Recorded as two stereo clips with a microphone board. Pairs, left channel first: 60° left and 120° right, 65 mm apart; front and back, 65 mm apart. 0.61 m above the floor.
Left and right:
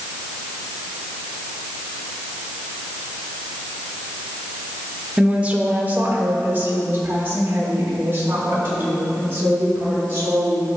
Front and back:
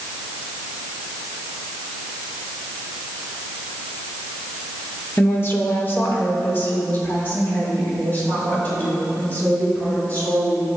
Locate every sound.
5.2 s a woman speaking: 45° right, 1.0 m; by 10.7 s 65° right, 6.5 m